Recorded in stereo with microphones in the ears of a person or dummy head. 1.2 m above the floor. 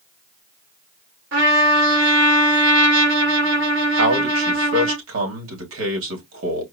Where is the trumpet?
65° right (ahead or behind), 2 m.